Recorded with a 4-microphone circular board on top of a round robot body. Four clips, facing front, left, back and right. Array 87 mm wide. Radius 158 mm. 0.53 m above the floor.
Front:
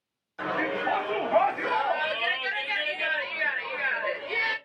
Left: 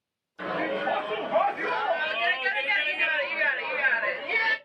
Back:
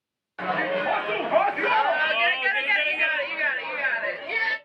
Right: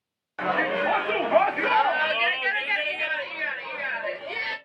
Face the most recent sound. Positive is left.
turn(degrees=125)